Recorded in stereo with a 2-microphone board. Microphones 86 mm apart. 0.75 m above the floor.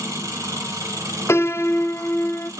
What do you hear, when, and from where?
0.0 s an engine running: 40° right (ahead or behind), 1.8 m
1.3 s a piano: 30° left (ahead or behind), 0.5 m